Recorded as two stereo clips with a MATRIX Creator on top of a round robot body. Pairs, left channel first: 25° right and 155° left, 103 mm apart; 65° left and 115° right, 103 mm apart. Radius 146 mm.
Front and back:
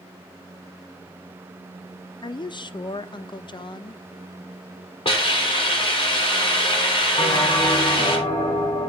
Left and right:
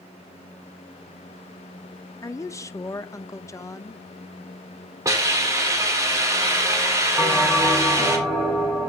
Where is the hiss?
55° right, 3.5 m.